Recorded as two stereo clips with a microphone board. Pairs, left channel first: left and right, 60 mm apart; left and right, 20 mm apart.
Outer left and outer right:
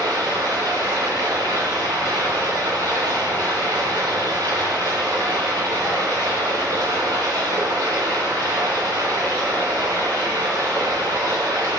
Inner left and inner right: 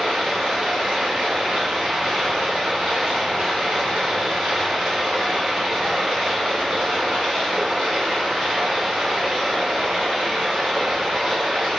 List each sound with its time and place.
0.0 s running water: 70° right (ahead or behind), 1.6 m